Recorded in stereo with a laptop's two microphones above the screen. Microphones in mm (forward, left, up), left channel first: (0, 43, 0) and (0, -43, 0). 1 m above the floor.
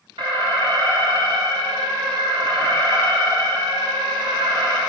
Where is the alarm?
85° right, 1.9 m.